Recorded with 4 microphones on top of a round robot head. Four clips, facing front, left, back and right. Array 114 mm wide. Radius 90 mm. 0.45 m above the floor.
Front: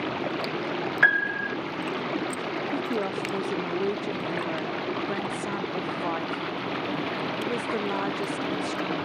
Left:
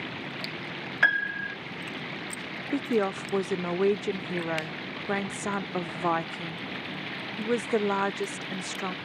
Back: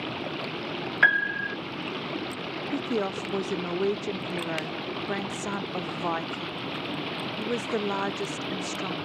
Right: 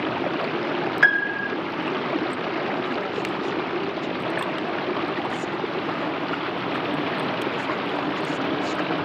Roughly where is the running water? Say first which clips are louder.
Right 13 dB, front 4 dB; right.